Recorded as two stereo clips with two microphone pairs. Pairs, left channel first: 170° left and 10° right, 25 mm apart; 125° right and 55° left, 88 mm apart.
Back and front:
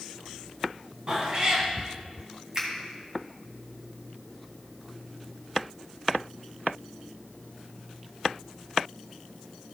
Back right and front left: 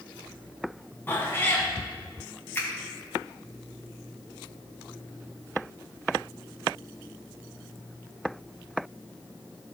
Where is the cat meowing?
60° right, 1.8 m.